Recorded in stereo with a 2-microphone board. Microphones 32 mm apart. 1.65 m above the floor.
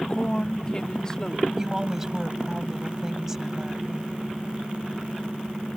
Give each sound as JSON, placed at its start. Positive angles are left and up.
{"t": 0.1, "sound": "a woman speaking", "side_deg": 35}
{"t": 1.6, "sound": "a woman speaking", "side_deg": -15}